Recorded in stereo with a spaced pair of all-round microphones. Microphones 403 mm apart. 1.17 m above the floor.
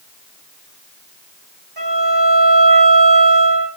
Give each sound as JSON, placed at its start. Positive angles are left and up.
{"t": 1.8, "sound": "a violin", "side_deg": -65, "distance_m": 9.5}